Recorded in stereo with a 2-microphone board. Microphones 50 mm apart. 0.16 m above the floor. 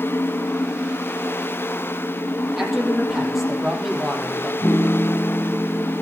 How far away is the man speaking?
About 4.5 m.